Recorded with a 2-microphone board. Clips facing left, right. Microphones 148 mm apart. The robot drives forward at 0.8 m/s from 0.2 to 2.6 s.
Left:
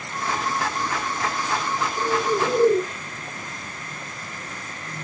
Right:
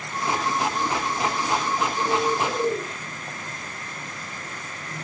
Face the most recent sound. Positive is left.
turn(degrees=70)  # may be behind; listen again after turning